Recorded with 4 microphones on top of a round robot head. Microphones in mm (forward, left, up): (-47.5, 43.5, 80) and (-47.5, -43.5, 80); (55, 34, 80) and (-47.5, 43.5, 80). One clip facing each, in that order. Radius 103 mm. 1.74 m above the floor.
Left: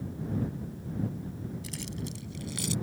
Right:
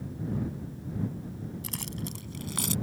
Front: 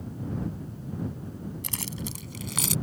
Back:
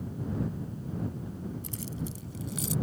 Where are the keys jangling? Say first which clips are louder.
Even, front 1 dB; 35° right.